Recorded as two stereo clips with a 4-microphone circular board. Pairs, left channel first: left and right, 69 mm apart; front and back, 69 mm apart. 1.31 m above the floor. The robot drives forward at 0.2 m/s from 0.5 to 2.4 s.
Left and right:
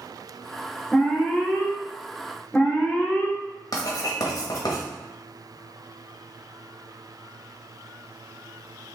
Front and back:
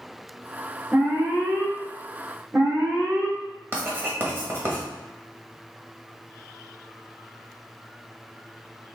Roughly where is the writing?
Behind left.